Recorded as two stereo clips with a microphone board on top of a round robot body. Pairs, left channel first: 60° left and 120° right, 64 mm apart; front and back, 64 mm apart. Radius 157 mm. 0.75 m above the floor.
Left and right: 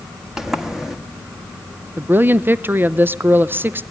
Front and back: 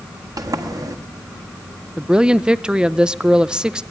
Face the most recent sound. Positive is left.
turn(degrees=-115)